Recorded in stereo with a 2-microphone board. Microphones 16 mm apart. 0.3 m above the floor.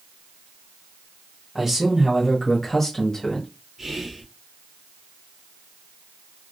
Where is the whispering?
35° right (ahead or behind), 1.1 m.